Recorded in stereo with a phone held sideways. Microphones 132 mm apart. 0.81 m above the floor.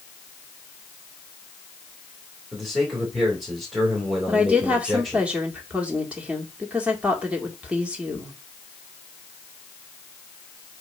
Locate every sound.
2.5 s a man speaking: centre (ahead or behind), 2.5 m
4.3 s a woman speaking: 10° right (ahead or behind), 1.9 m